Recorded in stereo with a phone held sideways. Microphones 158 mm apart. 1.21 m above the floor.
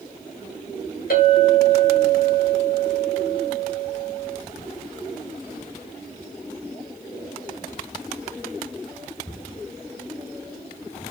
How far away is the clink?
About 3 m.